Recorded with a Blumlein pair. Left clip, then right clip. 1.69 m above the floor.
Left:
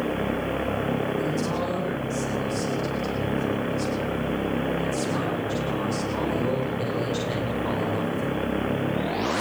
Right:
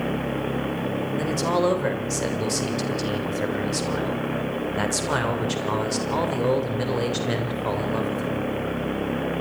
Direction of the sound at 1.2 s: 60° right.